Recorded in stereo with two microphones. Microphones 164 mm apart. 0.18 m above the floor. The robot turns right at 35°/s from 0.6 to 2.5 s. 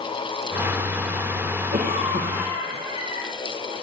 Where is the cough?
60° right (ahead or behind), 4.5 m; by 3.2 s 35° right (ahead or behind), 4.5 m.